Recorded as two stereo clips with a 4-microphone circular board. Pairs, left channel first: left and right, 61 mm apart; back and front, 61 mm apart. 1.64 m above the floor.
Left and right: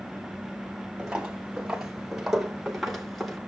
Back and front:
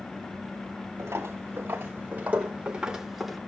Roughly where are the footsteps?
Ahead.